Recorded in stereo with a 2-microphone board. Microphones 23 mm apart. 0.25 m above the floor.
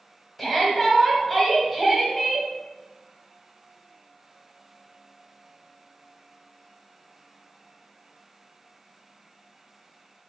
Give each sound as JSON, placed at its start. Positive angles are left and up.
{"t": 0.4, "sound": "a shout", "side_deg": 0, "distance_m": 1.0}